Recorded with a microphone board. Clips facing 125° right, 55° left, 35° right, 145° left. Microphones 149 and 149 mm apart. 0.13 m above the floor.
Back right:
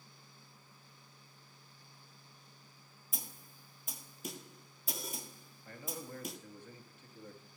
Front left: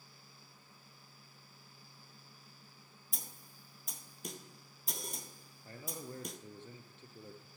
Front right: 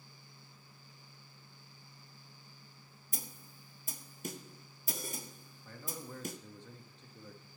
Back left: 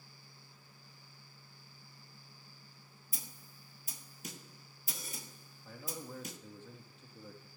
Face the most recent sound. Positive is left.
turn(degrees=70)